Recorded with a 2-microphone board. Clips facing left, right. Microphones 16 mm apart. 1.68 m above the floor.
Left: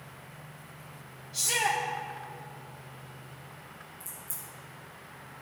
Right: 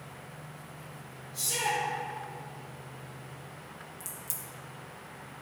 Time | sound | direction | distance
1.3 | a shout | 80° left | 1.8 m
4.0 | a crack | 70° right (ahead or behind) | 1.4 m